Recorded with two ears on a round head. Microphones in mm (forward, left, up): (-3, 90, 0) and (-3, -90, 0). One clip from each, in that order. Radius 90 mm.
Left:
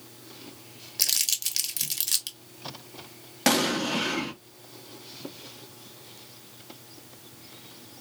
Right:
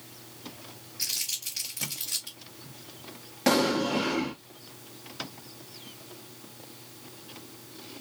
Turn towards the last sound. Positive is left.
turn(degrees=35)  # may be behind; listen again after turning